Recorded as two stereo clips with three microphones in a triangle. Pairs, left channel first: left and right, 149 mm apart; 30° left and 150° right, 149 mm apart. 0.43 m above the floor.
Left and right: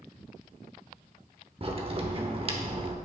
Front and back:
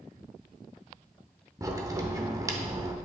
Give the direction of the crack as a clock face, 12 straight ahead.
3 o'clock.